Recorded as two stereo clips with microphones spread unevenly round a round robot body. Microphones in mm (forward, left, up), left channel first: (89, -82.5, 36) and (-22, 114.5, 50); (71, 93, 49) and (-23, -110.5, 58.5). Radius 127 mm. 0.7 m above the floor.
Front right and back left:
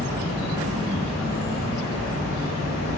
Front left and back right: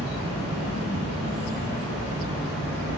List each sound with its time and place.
0.0 s an insect: 105° right, 1.6 m